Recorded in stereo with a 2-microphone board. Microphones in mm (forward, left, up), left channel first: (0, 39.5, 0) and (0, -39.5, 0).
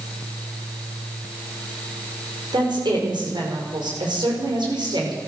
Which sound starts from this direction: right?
A woman speaking, at 2.5 s.